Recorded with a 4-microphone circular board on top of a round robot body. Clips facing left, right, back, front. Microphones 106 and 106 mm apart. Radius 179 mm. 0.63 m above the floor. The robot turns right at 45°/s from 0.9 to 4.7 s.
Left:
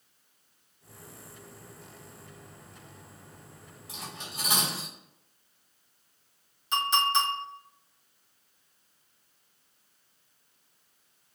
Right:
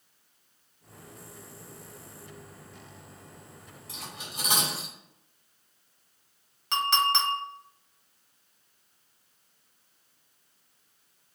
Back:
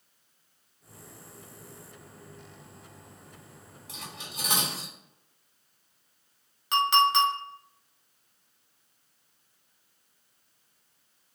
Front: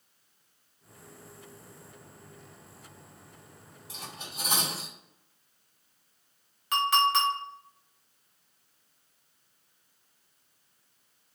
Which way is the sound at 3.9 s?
175° left.